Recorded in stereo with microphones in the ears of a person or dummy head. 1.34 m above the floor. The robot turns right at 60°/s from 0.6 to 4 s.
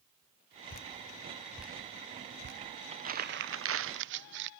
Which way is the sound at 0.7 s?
45° left (ahead or behind).